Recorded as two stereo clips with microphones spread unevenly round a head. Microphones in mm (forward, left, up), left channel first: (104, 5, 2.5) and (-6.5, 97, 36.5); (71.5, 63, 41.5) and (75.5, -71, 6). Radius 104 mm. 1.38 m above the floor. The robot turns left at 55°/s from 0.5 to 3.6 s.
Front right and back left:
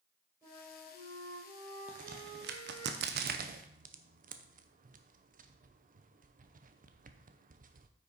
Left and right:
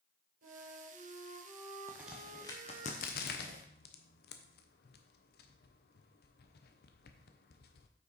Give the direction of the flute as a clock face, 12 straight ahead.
4 o'clock.